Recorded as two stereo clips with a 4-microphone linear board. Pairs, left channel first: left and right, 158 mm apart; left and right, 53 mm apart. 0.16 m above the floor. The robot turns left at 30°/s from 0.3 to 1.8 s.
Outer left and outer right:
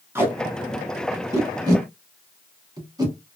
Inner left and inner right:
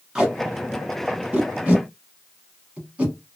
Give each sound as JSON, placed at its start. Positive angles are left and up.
{"t": 0.1, "sound": "tape being pulled", "side_deg": -15, "distance_m": 1.1}